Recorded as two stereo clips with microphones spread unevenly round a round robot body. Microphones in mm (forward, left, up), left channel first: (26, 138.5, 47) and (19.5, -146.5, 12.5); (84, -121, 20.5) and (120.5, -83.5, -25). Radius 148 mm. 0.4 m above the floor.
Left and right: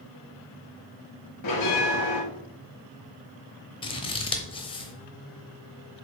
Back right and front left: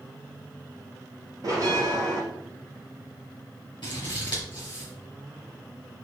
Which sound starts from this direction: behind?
Scissors, at 3.8 s.